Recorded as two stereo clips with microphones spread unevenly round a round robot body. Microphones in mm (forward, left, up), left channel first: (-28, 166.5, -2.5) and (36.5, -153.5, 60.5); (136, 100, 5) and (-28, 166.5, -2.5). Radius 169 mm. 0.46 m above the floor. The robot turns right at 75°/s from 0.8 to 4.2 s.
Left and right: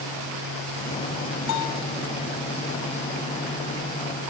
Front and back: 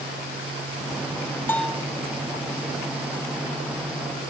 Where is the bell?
55° left; by 1.9 s 85° left.